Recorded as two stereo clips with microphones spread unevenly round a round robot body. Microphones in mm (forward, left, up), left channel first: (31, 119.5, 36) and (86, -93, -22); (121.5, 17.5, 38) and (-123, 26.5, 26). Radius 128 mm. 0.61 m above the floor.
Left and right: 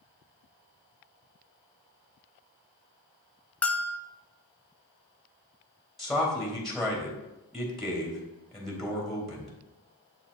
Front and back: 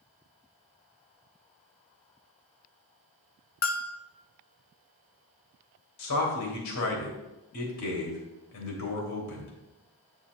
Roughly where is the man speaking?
Ahead.